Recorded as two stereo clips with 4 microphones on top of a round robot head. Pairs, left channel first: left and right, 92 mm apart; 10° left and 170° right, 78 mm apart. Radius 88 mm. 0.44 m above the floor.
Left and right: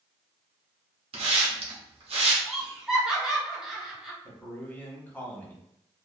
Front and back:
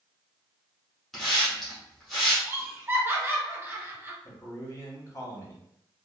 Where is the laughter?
165° right, 0.9 m.